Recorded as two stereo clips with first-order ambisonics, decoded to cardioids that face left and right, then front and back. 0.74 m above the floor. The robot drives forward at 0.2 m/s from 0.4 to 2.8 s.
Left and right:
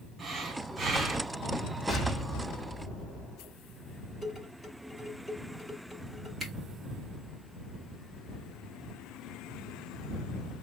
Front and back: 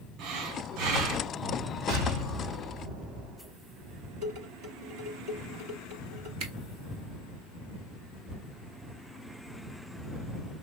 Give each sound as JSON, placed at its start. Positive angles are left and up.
{"t": 0.2, "sound": "breathing", "azimuth_deg": -160, "distance_m": 1.3}
{"t": 1.9, "sound": "an explosion", "azimuth_deg": 160, "distance_m": 2.5}
{"t": 4.2, "sound": "dishes clattering", "azimuth_deg": 160, "distance_m": 4.5}
{"t": 6.4, "sound": "a camera shutter", "azimuth_deg": -165, "distance_m": 1.9}